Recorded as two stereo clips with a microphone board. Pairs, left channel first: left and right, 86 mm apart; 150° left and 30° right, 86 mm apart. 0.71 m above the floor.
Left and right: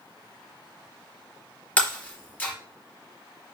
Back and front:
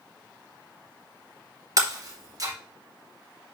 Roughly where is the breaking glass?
Ahead.